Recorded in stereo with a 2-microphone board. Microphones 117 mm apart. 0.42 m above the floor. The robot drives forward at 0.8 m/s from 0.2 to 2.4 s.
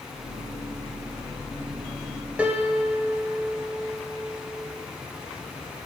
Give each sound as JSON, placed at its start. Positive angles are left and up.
{"t": 2.4, "sound": "a piano", "side_deg": -10, "distance_m": 1.3}